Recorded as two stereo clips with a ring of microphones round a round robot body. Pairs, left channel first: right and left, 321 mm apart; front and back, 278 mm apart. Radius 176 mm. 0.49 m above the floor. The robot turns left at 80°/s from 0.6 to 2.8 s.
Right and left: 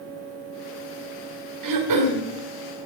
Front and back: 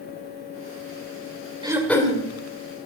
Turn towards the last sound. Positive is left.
turn(degrees=15)